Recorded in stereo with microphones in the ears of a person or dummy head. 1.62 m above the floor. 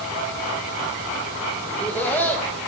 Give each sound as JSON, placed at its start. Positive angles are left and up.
{"t": 1.7, "sound": "laughter", "side_deg": 5, "distance_m": 2.0}